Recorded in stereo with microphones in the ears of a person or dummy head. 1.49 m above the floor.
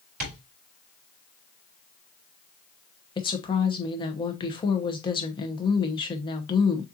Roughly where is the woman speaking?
Left.